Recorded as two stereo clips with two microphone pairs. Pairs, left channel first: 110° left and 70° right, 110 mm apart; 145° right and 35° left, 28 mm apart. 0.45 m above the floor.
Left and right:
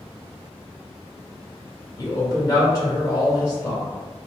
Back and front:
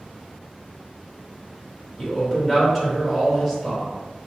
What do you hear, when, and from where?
2.0 s a man speaking: 140° left, 1.5 m